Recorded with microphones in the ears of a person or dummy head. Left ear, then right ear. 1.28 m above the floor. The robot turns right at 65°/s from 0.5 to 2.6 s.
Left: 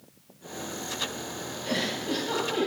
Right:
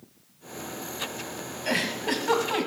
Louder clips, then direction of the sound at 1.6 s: Right 3 dB; 35° right (ahead or behind).